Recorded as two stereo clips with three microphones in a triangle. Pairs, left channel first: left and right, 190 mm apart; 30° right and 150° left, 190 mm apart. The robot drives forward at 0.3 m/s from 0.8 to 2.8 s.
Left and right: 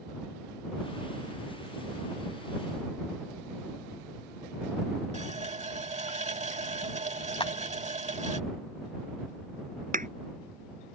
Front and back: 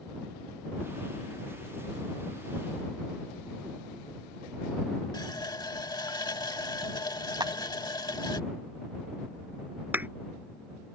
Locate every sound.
5.1 s a running tap: 85° right
7.4 s a clap: 110° left
9.9 s a thud: 130° right